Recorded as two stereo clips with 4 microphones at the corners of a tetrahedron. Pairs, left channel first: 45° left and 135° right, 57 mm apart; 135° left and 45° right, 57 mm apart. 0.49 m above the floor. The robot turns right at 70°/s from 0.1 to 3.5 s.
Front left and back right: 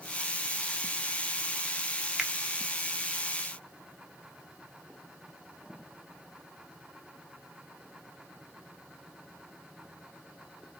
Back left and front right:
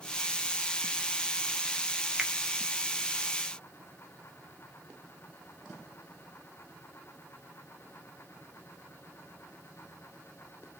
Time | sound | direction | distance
2.2 | a finger snap | 85° right | 0.7 m